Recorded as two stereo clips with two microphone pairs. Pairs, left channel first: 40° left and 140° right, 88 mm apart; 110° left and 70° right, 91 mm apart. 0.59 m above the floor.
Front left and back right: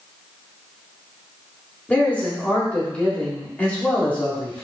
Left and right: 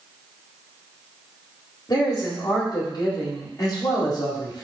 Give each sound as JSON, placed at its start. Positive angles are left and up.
{"t": 1.9, "sound": "a man speaking", "azimuth_deg": 110, "distance_m": 1.8}